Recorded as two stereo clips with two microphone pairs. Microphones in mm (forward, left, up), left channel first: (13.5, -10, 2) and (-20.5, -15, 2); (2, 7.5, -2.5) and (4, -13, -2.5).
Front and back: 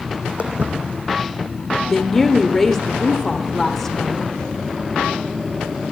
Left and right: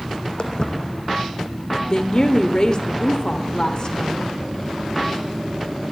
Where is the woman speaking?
85° left, 1.0 m.